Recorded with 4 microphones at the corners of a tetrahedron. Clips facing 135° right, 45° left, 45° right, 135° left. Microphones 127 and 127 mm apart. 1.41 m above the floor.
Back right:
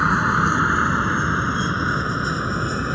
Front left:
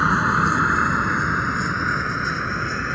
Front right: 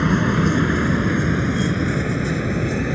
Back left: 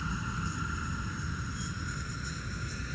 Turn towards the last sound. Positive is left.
turn(degrees=-60)